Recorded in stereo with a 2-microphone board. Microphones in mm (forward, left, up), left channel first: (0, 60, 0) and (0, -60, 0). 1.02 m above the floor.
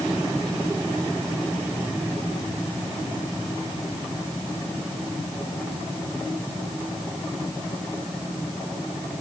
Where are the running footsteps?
I don't hear running footsteps.